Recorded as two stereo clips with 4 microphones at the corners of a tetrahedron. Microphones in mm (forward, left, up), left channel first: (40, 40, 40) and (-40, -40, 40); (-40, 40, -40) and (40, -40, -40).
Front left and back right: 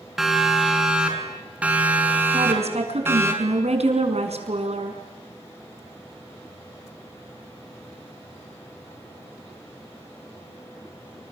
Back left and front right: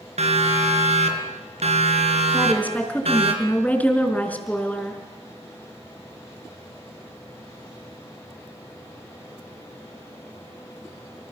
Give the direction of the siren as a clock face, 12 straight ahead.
2 o'clock.